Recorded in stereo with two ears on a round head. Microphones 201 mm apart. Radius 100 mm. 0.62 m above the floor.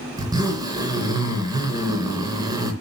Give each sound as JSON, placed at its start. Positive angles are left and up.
{"t": 0.2, "sound": "a zipper", "side_deg": -20, "distance_m": 3.0}